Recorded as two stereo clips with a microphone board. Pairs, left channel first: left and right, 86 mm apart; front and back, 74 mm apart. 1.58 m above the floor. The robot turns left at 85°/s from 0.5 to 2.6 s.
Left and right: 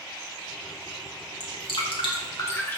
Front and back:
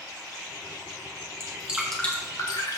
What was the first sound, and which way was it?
Dripping, 125° left.